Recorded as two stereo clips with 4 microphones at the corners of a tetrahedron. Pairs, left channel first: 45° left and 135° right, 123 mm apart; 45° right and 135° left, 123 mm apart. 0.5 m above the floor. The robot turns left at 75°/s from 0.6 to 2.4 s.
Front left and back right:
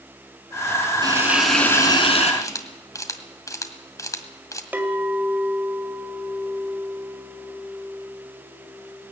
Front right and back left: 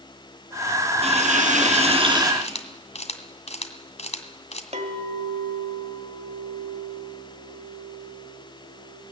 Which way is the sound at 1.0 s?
170° left.